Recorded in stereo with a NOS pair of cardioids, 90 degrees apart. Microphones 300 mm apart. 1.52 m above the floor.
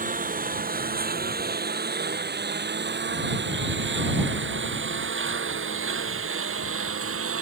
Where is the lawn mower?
25° right; by 7.4 s 45° right.